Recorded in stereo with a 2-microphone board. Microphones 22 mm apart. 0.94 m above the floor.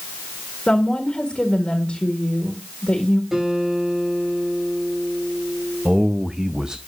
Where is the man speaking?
40° right (ahead or behind), 0.5 m.